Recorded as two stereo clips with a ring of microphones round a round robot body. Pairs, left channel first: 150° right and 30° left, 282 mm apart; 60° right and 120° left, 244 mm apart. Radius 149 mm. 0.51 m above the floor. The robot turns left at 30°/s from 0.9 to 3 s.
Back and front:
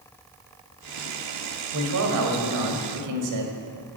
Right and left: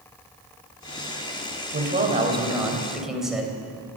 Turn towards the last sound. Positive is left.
turn(degrees=30)